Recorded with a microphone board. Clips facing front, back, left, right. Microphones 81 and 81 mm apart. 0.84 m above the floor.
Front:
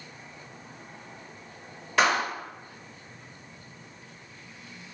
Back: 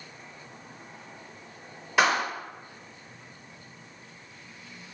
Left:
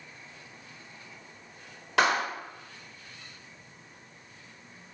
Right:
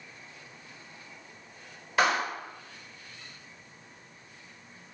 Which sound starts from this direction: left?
A clap, at 2.0 s.